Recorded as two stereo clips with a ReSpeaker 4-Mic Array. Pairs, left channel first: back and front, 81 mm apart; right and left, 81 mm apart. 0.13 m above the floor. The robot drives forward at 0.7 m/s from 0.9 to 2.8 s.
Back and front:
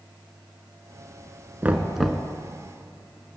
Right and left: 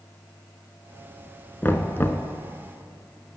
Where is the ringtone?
No ringtone in this recording.